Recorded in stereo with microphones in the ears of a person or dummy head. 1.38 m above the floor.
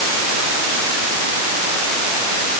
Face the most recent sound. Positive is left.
No sound to turn to.